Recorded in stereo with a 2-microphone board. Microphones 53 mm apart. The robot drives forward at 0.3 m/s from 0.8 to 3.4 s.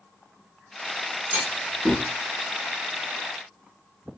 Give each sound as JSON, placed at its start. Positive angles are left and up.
{"t": 1.3, "sound": "a clunk", "side_deg": -25, "distance_m": 1.8}